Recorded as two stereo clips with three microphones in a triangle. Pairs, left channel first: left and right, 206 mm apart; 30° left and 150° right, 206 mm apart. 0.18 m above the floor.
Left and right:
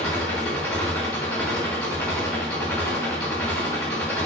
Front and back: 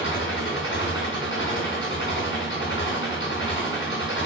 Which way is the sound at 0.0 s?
5° left.